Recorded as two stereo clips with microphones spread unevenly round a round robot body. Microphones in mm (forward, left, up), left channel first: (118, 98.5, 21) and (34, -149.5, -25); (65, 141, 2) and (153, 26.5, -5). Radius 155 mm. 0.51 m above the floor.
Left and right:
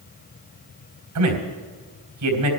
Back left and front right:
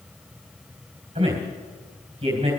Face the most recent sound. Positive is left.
turn(degrees=-120)